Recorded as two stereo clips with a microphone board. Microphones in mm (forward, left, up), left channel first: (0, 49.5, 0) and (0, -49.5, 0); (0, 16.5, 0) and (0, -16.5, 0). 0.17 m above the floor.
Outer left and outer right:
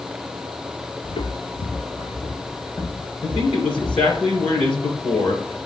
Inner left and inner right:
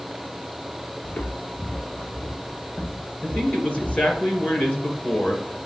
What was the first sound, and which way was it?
Footsteps, 50° left (ahead or behind).